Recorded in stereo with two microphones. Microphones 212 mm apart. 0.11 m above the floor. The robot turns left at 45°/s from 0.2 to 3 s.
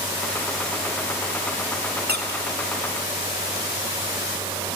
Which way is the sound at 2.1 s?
50° right (ahead or behind).